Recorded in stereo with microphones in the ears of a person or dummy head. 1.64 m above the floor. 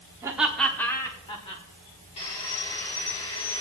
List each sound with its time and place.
0.2 s laughter: 15° right (ahead or behind), 1.2 m; by 1.6 s 30° left (ahead or behind), 2 m
2.2 s sawing: 25° left (ahead or behind), 1.6 m